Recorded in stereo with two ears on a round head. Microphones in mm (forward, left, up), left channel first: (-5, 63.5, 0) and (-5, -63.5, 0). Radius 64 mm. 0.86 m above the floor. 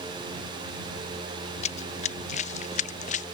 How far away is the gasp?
I don't hear a gasp.